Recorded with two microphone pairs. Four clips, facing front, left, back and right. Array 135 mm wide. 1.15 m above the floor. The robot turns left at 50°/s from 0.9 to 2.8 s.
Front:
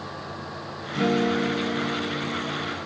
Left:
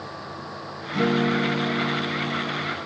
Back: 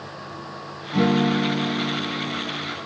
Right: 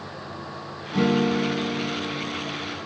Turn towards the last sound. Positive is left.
turn(degrees=90)